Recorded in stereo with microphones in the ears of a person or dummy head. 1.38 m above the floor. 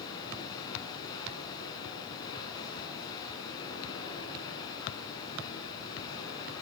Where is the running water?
15° left (ahead or behind), 8 m.